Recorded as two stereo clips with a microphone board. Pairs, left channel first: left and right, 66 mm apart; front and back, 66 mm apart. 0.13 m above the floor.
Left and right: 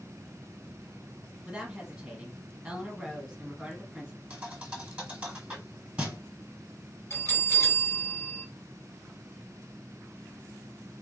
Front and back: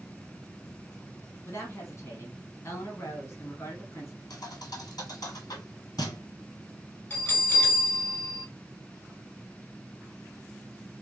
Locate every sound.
1.4 s a woman speaking: 15° right, 1.6 m
4.3 s a thud: 15° right, 1.2 m
7.1 s a bell: 55° left, 2 m